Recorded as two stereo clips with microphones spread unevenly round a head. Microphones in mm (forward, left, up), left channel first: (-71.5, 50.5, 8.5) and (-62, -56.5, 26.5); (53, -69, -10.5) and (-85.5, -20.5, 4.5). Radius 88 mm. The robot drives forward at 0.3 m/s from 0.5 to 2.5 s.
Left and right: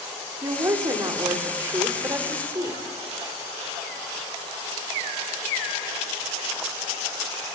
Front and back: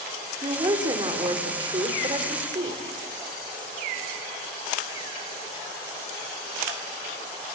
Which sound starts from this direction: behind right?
A woman speaking, at 0.4 s.